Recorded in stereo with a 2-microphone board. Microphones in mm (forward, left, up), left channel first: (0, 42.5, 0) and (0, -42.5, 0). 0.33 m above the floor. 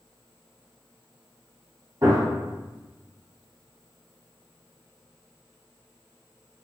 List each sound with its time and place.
2.0 s a gunshot: 40° right (ahead or behind), 1.3 m